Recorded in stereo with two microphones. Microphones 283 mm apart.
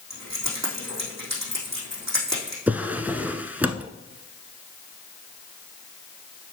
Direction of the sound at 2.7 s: 5° right (ahead or behind).